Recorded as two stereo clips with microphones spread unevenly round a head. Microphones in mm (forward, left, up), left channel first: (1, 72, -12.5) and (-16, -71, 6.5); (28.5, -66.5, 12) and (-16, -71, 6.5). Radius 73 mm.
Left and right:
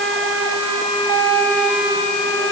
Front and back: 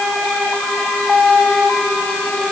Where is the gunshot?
I don't hear a gunshot.